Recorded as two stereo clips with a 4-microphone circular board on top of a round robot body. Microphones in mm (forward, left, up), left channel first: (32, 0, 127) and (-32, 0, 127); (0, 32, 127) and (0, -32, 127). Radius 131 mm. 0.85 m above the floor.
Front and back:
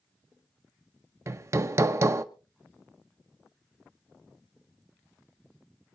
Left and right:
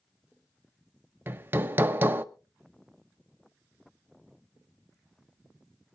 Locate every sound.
1.3 s hammering: 145° right, 0.9 m